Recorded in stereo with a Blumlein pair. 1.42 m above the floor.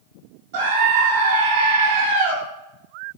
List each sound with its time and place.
0.5 s a scream: 50° right, 4.5 m